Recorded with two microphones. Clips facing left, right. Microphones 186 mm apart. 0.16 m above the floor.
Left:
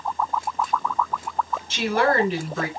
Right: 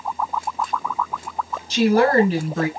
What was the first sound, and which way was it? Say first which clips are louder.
A woman speaking: right 6 dB; 40° right (ahead or behind).